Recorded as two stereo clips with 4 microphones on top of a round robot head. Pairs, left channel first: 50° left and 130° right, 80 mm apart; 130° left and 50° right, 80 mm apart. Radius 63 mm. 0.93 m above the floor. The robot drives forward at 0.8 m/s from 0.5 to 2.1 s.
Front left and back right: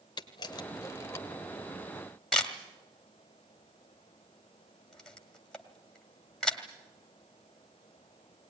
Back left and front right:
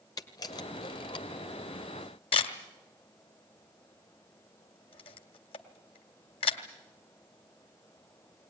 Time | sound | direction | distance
0.2 | a camera shutter | 90° left | 1.3 m